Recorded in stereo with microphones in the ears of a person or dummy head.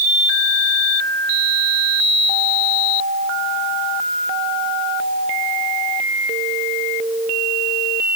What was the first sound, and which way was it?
Only background noise.